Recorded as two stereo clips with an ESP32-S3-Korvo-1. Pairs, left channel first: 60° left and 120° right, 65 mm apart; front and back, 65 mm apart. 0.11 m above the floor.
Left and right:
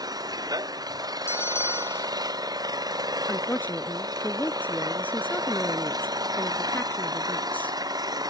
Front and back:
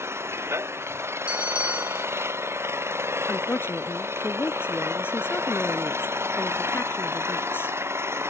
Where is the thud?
I don't hear a thud.